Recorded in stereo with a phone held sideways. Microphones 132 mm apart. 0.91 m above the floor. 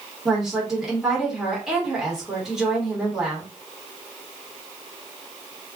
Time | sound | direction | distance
0.2 | a woman speaking | centre (ahead or behind) | 1.2 m